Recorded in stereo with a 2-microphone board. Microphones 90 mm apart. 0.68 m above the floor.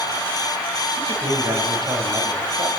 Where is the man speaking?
60° right (ahead or behind), 4 m.